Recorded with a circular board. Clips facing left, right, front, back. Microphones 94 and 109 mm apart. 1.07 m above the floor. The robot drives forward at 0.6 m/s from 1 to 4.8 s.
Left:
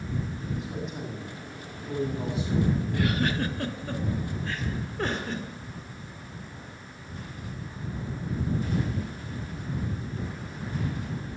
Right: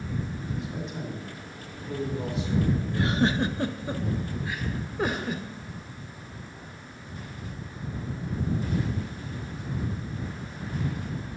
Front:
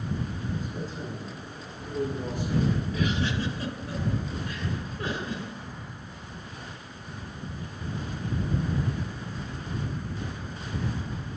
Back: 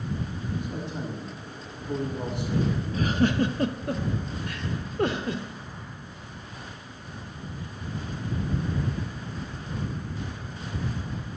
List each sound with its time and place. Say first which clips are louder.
0.5 s a man speaking: even, back 1 dB; 175° left, 7 m; by 3.2 s straight behind, 8 m
2.9 s a giggle: right 2 dB, back 5 dB; 140° right, 0.6 m; by 5.5 s 170° right, 1.5 m